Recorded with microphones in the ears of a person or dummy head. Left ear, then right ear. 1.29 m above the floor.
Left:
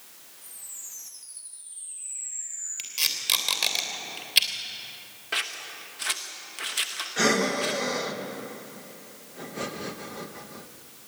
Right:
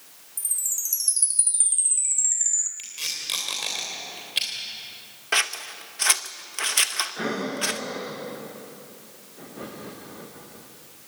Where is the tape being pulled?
20° left (ahead or behind), 3 m.